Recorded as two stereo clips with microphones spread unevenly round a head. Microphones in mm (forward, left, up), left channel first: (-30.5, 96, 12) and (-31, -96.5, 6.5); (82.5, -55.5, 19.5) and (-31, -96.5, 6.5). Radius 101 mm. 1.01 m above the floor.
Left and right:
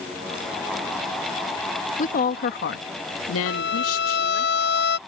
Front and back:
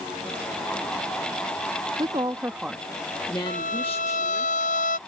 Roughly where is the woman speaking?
Behind left.